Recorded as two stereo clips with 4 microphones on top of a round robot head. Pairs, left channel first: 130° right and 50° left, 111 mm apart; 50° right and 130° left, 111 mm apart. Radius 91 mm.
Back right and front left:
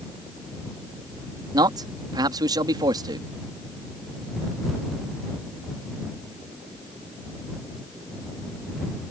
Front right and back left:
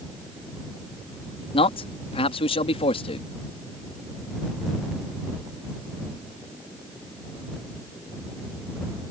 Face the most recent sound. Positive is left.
turn(degrees=-10)